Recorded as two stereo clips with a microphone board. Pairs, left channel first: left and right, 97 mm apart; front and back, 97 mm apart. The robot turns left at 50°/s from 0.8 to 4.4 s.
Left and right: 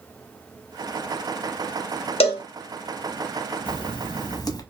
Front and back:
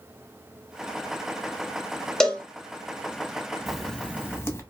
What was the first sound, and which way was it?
A cowbell, 85° left.